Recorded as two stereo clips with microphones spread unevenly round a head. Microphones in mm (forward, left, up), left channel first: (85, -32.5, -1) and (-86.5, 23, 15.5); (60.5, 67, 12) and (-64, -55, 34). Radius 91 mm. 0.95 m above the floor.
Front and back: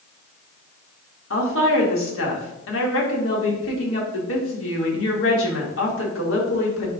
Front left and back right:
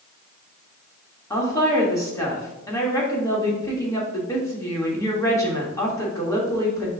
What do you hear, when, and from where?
1.3 s a woman speaking: 30° right, 2.5 m